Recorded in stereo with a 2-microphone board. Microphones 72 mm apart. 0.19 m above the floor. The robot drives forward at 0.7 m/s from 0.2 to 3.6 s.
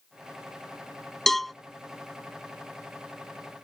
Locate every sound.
1.3 s a cowbell: centre (ahead or behind)